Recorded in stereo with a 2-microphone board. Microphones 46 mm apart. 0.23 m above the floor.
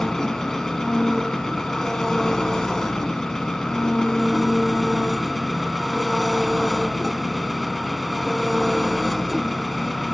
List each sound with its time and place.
0.0 s an engine running: 10° left (ahead or behind), 0.8 m